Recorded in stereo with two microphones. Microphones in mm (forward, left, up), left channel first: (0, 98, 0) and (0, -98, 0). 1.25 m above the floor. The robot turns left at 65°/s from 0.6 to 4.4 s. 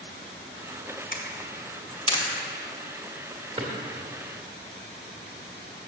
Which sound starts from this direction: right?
A drawer, at 3.6 s.